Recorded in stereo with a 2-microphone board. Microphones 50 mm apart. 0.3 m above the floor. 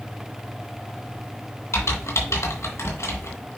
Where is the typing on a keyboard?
60° left (ahead or behind), 2.5 m.